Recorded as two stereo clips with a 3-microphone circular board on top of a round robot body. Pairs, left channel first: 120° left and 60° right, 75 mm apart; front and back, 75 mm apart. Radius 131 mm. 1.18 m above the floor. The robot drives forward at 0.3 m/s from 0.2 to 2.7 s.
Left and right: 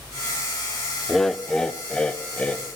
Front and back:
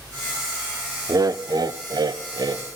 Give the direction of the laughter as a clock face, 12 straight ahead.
5 o'clock.